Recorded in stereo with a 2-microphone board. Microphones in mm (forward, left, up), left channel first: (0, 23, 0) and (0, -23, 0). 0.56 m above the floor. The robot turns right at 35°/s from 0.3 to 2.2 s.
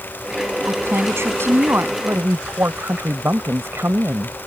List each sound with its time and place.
0.7 s a woman speaking: 105° right; by 1.9 s 60° right
2.0 s a woman speaking: 70° right (ahead or behind)